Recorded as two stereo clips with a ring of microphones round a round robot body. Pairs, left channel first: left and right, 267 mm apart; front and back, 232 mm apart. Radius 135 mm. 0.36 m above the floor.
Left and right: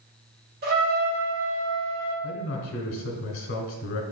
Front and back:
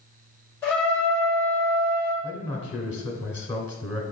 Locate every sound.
0.6 s a trumpet: 75° right, 1.5 m
2.2 s a man speaking: 60° left, 1.2 m